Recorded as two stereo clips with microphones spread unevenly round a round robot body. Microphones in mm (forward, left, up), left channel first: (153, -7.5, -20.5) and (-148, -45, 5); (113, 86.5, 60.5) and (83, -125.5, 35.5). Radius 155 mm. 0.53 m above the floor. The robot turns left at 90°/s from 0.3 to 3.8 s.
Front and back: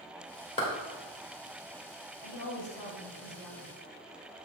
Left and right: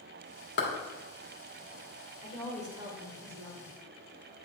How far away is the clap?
About 1.7 m.